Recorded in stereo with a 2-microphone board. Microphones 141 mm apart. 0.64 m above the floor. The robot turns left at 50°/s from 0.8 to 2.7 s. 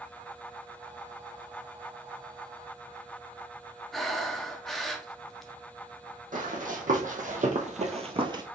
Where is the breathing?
Centre (ahead or behind), 0.7 m.